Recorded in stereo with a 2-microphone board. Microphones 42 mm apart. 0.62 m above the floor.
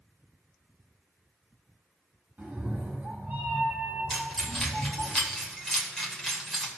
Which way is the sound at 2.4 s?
45° right (ahead or behind).